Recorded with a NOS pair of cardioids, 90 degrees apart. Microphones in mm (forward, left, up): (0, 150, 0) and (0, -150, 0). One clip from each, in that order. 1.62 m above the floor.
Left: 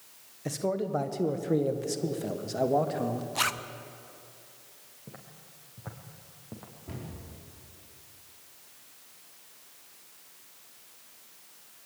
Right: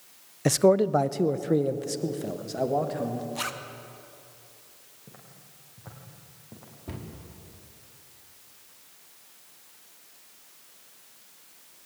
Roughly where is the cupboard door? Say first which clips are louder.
Right 2 dB; ahead right.